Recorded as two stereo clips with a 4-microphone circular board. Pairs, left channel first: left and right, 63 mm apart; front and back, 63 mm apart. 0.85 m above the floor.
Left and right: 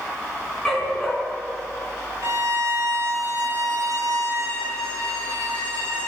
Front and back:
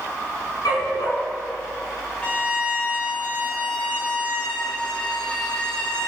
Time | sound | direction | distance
0.7 | a dog barking | 10° left | 3 m
2.2 | a violin | 70° right | 2 m